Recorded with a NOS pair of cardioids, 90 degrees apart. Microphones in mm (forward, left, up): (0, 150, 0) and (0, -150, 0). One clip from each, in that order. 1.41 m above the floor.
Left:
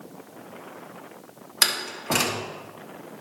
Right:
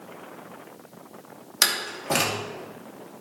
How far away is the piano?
No piano in this recording.